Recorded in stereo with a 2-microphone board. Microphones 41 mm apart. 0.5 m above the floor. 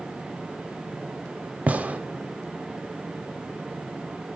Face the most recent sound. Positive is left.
turn(degrees=-35)  # may be behind; listen again after turning